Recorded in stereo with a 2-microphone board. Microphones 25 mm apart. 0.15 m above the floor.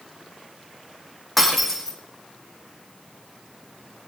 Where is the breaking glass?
5° left (ahead or behind), 5 m.